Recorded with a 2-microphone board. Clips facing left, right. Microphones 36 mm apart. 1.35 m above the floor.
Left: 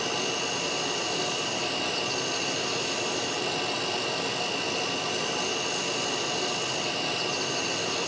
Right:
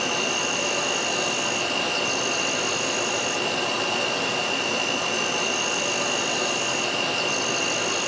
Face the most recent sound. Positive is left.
turn(degrees=-80)